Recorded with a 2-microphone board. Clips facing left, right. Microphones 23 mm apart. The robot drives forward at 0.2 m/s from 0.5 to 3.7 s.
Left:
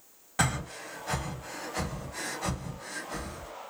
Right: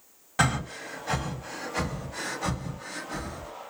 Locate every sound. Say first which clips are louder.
0.4 s breathing: right 4 dB; 15° right (ahead or behind), 0.7 m; by 3.5 s 10° right (ahead or behind), 1.2 m